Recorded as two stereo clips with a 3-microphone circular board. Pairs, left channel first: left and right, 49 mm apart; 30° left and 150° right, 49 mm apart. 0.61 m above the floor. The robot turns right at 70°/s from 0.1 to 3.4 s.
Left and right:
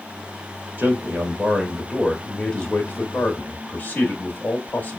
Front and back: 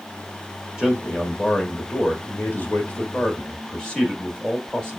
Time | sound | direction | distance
0.8 | a man speaking | 95° right | 1.0 m